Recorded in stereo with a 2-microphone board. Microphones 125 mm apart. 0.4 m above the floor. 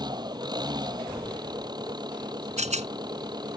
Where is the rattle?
65° right (ahead or behind).